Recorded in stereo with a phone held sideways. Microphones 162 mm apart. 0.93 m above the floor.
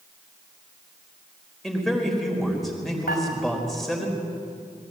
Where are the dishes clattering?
80° left, 3.5 m.